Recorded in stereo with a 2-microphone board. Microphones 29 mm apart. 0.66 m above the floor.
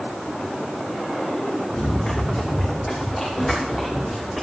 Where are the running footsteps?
30° left (ahead or behind), 5 m; by 4.4 s centre (ahead or behind), 3.5 m.